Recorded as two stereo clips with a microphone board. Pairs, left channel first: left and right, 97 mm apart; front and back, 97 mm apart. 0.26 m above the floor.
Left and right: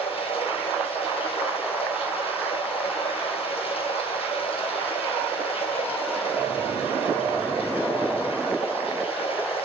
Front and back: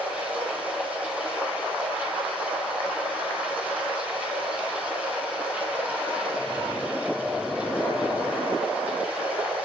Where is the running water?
105° left, 5.5 m.